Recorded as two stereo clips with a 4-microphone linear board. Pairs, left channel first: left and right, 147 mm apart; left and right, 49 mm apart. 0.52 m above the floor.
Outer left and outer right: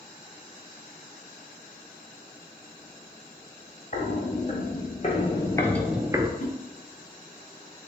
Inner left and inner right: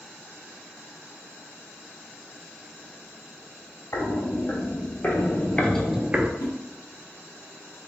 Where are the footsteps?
55° left (ahead or behind), 1.6 m; by 6.3 s 30° right (ahead or behind), 0.6 m.